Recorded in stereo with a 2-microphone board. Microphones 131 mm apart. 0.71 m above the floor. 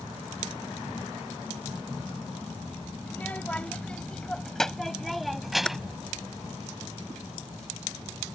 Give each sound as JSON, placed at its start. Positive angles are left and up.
{"t": 3.1, "sound": "a child speaking", "side_deg": 15}
{"t": 5.7, "sound": "typing on a keyboard", "side_deg": 5}